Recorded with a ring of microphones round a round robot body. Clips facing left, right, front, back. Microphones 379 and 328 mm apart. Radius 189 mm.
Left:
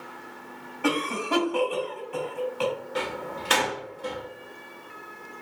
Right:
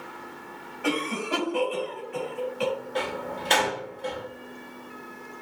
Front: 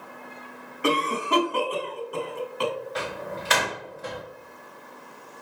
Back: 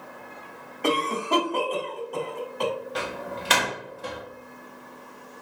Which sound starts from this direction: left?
A cough, at 0.8 s.